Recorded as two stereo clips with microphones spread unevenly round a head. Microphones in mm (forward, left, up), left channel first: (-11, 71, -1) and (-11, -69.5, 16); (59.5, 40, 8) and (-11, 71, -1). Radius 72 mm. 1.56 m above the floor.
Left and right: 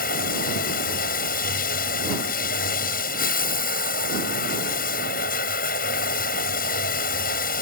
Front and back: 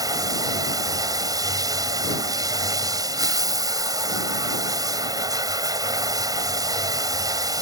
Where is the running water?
115° left.